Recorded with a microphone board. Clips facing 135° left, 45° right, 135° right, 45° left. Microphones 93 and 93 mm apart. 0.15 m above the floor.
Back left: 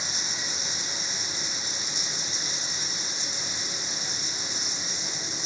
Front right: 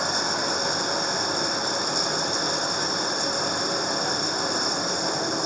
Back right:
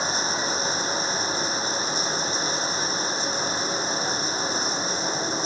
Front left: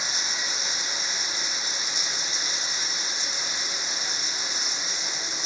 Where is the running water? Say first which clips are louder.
Front right 12 dB, back right 8 dB; 80° right.